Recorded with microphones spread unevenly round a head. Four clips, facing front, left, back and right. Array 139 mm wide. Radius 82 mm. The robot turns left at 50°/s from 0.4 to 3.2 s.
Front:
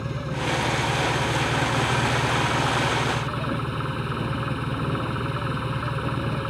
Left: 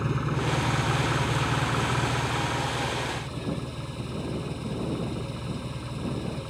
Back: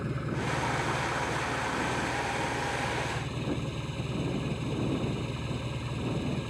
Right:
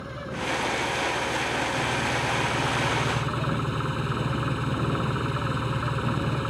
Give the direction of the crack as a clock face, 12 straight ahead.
I don't hear a crack.